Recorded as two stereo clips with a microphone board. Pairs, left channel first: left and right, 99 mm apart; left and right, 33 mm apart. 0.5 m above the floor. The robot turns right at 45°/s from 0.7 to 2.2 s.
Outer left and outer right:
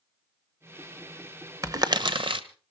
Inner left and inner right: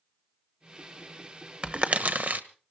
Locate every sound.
1.6 s crumpling: 35° right (ahead or behind), 1.0 m; by 2.4 s 55° right (ahead or behind), 1.0 m